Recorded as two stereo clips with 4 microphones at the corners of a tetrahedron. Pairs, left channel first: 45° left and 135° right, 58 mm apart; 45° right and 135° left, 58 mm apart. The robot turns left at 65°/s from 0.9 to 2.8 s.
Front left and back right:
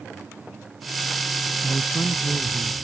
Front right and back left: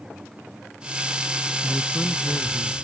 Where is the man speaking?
40° left; by 2.7 s 30° right.